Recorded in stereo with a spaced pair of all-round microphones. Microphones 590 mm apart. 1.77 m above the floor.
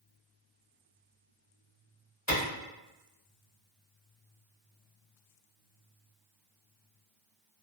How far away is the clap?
About 1.5 m.